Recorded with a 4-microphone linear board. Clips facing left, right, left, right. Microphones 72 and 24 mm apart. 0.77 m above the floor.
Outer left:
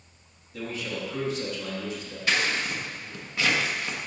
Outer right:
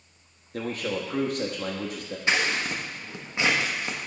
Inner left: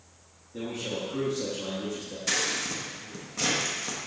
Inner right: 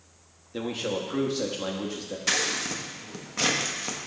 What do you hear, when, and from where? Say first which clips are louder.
0.5 s a man speaking: outer right 4 dB, inner right 3 dB; 50° right (ahead or behind), 0.9 m
2.3 s scissors: outer right 1 dB, inner right 2 dB; 20° right (ahead or behind), 0.7 m